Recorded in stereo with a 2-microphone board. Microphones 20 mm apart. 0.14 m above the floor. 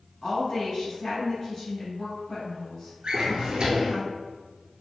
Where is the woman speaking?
15° left (ahead or behind), 1.2 m.